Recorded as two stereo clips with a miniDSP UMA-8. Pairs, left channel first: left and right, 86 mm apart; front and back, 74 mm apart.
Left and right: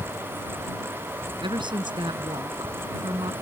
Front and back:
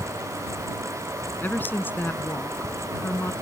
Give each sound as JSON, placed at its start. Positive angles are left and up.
{"t": 1.4, "sound": "a woman speaking", "azimuth_deg": -65}